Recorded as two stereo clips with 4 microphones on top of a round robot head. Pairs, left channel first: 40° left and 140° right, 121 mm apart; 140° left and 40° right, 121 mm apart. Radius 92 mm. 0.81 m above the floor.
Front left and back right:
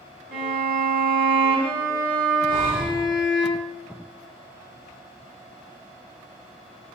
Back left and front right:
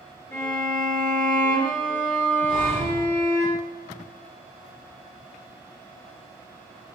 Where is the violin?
150° right, 0.8 m.